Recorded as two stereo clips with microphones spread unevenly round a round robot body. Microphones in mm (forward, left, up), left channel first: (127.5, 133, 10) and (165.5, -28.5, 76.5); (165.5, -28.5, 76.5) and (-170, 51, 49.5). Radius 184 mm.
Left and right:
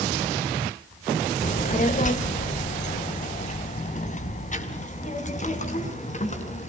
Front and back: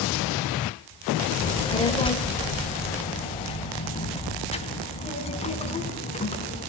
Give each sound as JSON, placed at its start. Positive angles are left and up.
{"t": 1.4, "sound": "a child speaking", "azimuth_deg": 65, "distance_m": 2.5}